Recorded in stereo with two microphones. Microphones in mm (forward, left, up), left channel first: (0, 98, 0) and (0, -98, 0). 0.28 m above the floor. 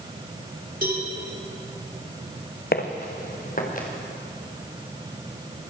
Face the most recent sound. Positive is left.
turn(degrees=45)  # may be behind; listen again after turning